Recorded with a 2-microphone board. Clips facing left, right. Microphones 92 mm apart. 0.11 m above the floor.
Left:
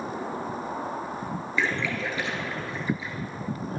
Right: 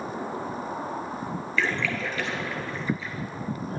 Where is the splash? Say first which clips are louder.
Even; 15° left (ahead or behind), 1.2 m.